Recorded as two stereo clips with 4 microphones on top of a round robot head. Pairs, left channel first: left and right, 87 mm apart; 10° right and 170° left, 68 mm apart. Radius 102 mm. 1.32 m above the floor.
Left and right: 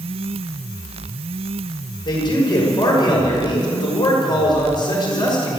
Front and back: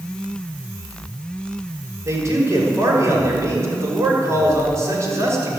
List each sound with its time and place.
2.0 s a man speaking: 125° left, 6 m